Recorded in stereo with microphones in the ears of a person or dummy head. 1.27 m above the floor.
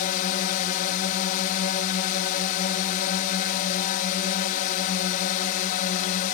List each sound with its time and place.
0.0 s a drone: 50° left (ahead or behind)